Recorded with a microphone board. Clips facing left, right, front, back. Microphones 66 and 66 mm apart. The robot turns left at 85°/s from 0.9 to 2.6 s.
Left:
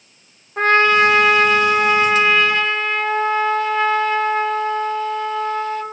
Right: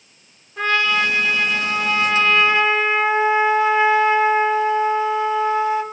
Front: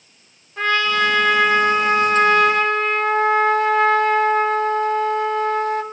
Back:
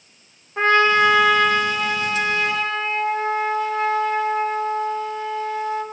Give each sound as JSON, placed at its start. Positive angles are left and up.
{"t": 0.6, "sound": "a trumpet", "azimuth_deg": 125, "distance_m": 0.6}